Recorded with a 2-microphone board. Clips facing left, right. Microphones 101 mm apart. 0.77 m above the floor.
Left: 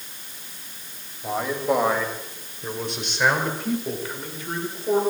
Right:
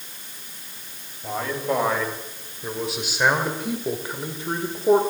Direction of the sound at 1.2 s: 10° left (ahead or behind).